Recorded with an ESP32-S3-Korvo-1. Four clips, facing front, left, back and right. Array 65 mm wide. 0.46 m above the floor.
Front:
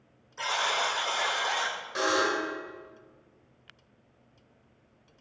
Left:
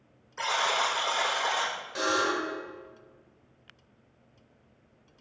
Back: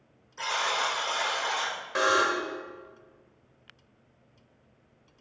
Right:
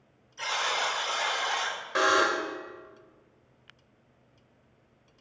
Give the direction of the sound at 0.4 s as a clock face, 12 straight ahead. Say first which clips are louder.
Left 2 dB, even; 9 o'clock.